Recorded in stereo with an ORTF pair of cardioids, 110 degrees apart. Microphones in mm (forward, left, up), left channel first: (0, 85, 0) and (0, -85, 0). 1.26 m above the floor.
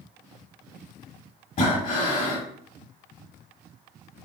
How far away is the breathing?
About 3.5 m.